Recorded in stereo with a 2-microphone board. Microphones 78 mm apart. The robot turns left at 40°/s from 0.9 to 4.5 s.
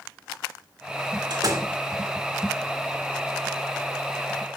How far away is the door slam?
About 2.5 m.